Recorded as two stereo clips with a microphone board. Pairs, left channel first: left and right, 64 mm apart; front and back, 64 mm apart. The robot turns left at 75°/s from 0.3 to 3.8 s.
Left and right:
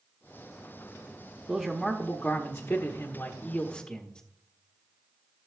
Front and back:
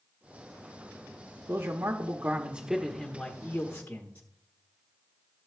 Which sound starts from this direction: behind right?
A man speaking, at 1.5 s.